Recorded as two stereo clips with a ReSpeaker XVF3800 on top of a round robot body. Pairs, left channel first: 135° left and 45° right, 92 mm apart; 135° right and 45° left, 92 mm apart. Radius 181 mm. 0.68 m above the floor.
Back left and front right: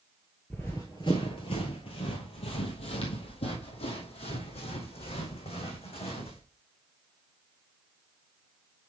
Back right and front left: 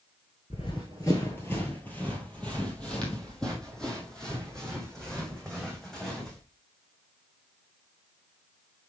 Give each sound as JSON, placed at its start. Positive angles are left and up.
{"t": 0.5, "sound": "running footsteps", "azimuth_deg": -145, "distance_m": 0.6}